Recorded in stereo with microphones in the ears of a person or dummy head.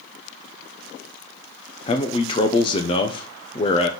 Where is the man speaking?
25° left (ahead or behind), 0.6 m.